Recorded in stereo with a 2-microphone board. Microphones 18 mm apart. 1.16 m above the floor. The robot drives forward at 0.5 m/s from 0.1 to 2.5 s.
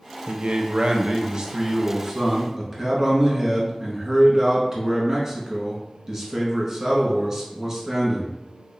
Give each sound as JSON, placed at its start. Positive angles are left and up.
{"t": 0.3, "sound": "a man speaking", "side_deg": -75, "distance_m": 0.5}